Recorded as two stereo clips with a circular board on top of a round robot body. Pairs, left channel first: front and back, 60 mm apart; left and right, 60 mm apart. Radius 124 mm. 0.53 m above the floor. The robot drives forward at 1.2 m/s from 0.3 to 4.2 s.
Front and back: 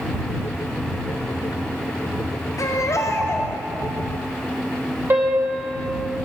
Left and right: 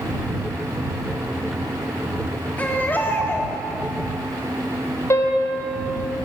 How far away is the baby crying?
About 2 m.